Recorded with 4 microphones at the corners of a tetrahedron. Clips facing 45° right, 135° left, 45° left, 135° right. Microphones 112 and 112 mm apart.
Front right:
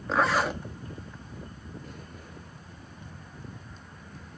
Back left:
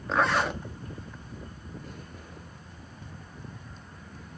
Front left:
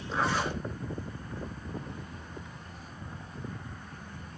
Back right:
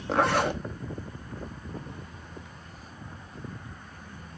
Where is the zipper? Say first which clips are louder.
Even, back right 6 dB; 135° right, 0.8 m.